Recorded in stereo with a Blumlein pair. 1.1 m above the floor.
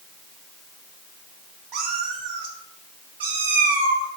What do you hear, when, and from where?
1.7 s a cat meowing: 35° right, 2.5 m; by 4.1 s 75° right, 2 m